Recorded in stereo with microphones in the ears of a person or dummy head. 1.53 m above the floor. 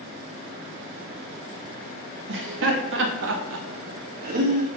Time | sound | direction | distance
2.3 | laughter | 75° right (ahead or behind) | 1.8 m